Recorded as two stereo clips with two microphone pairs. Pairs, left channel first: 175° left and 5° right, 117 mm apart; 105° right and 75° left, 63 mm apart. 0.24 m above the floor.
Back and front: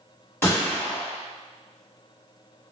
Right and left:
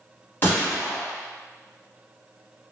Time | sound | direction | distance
0.4 | a gunshot | 130° right | 1.5 m